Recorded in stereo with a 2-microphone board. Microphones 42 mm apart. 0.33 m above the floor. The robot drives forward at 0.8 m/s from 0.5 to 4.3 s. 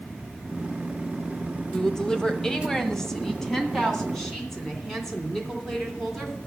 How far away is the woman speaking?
About 1.1 m.